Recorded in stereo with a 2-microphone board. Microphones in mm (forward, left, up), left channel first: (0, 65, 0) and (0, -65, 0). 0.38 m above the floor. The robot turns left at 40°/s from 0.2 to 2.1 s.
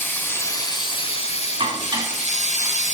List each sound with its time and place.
0.0 s running water: 165° left, 2.5 m; by 3.0 s 90° left, 2.5 m
1.6 s dishes clattering: 45° right (ahead or behind), 1.9 m; by 2.8 s 25° right (ahead or behind), 1.9 m